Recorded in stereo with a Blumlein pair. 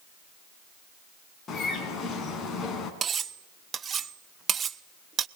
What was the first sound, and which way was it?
A bird, 20° left.